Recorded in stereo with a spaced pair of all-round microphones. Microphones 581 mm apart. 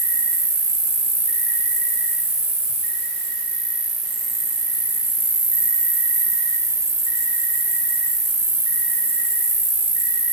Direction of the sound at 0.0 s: 50° right (ahead or behind).